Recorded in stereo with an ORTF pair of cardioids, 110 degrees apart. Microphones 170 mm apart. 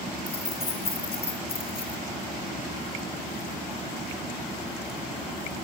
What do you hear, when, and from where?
0.3 s keys jangling: 35° left, 5.5 m